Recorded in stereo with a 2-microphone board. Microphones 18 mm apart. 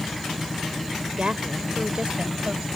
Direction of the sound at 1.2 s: 65° right (ahead or behind).